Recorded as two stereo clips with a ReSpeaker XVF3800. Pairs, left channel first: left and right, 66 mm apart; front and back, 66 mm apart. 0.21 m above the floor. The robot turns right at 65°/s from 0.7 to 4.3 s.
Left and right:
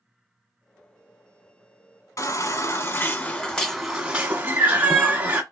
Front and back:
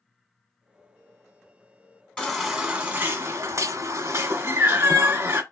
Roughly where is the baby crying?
Left.